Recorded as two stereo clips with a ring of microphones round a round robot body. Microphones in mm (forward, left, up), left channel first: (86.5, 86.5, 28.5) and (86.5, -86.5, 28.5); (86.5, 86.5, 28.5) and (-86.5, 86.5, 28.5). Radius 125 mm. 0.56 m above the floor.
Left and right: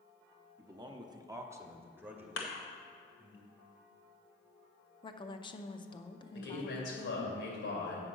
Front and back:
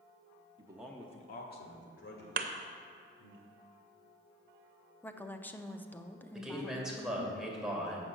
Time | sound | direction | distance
0.6 | a man speaking | 150° right | 0.8 m
2.4 | a thud | 140° left | 0.8 m
5.0 | a woman speaking | 70° left | 0.6 m
6.3 | a man speaking | 95° left | 2.5 m